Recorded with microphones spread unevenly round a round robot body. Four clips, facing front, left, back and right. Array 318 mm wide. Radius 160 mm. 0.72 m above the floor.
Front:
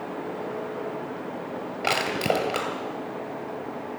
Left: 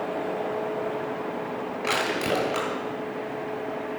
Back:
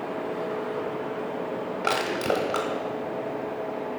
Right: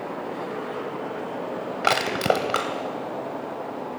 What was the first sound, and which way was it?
Crushing, 55° right.